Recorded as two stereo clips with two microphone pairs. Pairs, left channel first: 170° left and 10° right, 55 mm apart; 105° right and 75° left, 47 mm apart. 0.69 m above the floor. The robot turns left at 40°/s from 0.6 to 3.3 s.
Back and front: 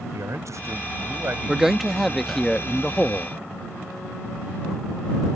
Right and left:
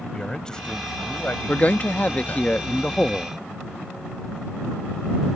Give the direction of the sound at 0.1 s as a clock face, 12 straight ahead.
1 o'clock.